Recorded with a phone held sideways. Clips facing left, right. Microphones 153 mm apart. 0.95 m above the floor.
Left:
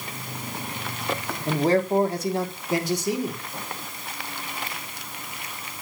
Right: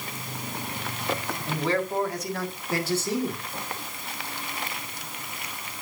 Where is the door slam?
No door slam in this recording.